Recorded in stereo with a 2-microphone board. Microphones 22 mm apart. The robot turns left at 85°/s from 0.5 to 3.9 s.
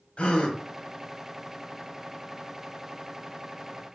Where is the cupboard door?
No cupboard door in this recording.